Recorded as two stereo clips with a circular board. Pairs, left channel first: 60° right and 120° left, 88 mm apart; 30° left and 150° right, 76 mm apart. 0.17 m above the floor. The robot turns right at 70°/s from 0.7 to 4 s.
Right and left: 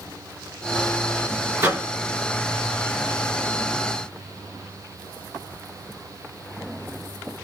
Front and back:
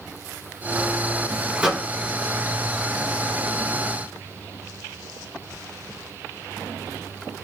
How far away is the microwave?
About 1.5 m.